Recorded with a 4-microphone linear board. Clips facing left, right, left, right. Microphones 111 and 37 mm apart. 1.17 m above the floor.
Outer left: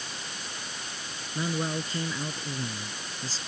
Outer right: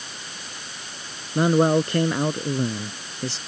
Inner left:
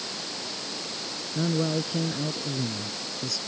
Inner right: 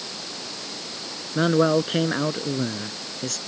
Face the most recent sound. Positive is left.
turn(degrees=-65)  # may be behind; listen again after turning